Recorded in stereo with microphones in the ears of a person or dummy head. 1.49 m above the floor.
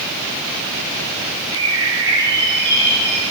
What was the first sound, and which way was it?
A bird, 25° right (ahead or behind).